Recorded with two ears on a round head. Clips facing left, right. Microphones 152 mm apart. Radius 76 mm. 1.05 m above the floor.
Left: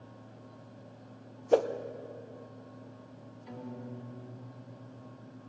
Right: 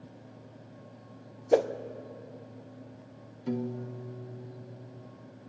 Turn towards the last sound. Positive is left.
turn(degrees=-65)  # may be behind; listen again after turning